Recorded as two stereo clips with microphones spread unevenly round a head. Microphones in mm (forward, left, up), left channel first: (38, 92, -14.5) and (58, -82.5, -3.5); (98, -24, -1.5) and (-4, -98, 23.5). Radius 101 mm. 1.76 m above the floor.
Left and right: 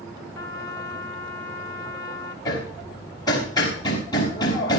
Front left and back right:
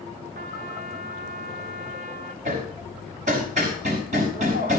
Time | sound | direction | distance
0.3 | a trumpet | 170° left | 1.3 m
2.5 | hammering | 170° left | 5 m